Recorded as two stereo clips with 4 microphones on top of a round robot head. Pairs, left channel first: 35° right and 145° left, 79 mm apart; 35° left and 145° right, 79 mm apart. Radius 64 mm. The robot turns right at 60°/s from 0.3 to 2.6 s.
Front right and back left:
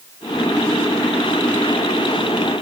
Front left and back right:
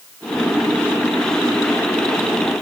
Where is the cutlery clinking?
No cutlery clinking in this recording.